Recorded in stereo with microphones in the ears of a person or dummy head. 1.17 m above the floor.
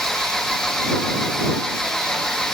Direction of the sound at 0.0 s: 5° left (ahead or behind).